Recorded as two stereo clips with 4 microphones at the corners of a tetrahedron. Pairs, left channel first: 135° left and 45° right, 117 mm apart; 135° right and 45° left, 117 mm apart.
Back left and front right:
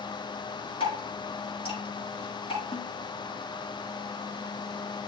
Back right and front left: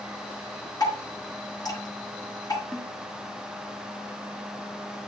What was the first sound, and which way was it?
Dripping, 170° left.